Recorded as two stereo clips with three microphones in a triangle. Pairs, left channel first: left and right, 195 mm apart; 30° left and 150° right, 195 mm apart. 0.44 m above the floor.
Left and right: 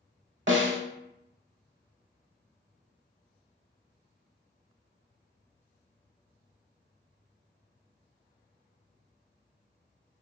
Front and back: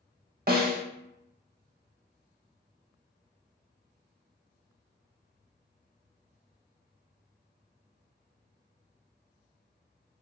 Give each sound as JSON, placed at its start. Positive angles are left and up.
{"t": 0.5, "sound": "a snare drum", "azimuth_deg": -105, "distance_m": 0.7}